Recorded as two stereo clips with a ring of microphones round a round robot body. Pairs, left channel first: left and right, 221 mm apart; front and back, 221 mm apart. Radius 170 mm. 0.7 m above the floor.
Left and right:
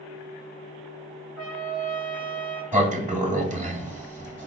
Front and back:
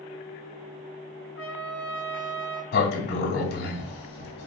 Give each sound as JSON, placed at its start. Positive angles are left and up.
{"t": 1.4, "sound": "a trumpet", "azimuth_deg": 150, "distance_m": 1.7}
{"t": 2.7, "sound": "a sliding door", "azimuth_deg": -35, "distance_m": 1.0}